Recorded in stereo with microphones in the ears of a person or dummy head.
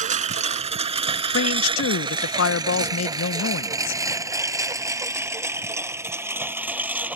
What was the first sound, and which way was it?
A lawn mower, 40° right (ahead or behind).